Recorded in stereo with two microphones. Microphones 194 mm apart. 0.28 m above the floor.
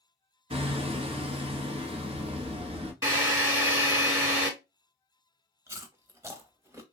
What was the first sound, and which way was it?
Hammering, 30° right (ahead or behind).